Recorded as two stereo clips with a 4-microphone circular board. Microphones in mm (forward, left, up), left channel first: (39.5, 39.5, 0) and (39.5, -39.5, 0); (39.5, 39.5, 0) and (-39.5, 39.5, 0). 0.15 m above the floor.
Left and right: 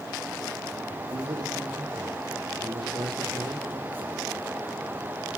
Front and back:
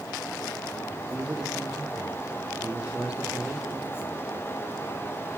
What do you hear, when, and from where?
1.0 s a man speaking: 105° right, 4 m